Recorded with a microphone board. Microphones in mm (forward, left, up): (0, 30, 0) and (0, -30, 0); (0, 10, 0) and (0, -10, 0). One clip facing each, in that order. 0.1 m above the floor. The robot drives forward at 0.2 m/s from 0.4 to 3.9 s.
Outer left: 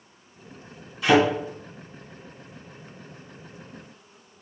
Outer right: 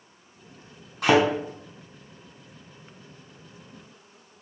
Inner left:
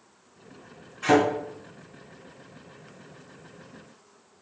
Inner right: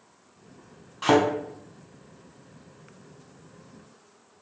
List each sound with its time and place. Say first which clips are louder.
1.0 s a thud: outer left 1 dB, even; 55° right (ahead or behind), 1.8 m